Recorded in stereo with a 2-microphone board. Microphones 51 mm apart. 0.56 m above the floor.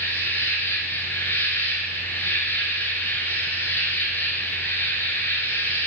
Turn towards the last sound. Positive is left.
turn(degrees=45)  # may be behind; listen again after turning